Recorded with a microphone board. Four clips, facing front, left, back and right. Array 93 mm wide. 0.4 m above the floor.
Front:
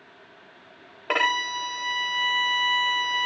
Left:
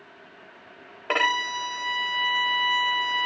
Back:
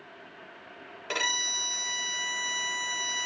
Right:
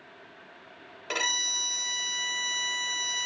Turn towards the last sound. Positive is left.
turn(degrees=45)